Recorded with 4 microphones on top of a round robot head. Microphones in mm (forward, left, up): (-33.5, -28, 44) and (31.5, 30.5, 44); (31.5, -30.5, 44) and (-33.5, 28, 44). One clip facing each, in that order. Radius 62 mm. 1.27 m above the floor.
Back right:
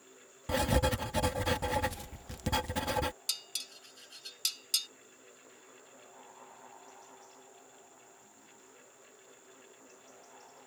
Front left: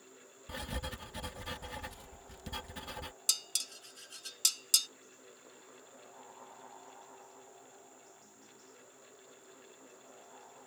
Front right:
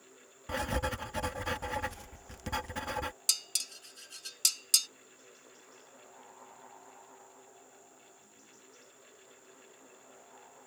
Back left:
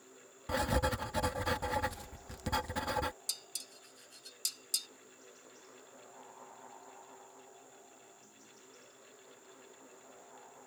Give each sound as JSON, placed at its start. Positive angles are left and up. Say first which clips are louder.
{"t": 0.5, "sound": "writing", "louder": "back right 13 dB, back left 2 dB", "azimuth_deg": -145}
{"t": 3.3, "sound": "dishes clattering", "louder": "front left 1 dB, front right 5 dB", "azimuth_deg": -15}